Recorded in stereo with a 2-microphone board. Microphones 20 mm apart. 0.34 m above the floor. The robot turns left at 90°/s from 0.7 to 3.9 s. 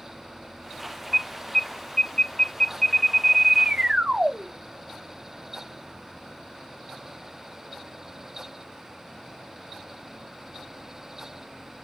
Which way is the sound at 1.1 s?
175° right.